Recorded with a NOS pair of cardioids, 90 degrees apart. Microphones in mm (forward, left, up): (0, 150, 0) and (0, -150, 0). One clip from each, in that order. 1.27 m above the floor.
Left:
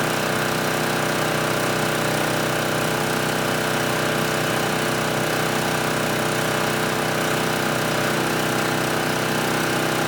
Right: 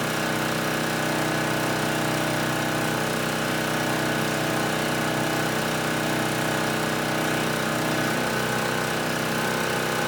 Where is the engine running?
25° left, 1.1 m.